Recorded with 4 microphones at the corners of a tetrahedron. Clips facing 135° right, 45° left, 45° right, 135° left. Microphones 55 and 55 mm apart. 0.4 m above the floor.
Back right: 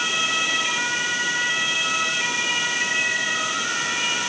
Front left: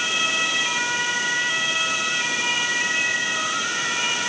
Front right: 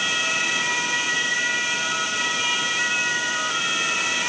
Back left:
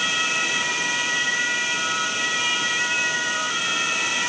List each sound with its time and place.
Only background noise.